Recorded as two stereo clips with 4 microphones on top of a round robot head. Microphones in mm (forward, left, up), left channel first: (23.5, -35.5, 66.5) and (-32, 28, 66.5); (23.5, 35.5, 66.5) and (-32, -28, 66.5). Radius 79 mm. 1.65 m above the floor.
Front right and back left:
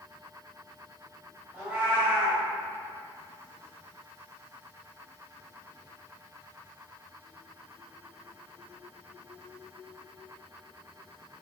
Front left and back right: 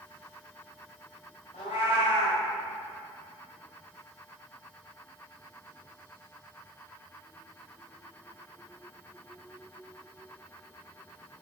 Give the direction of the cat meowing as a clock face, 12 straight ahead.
10 o'clock.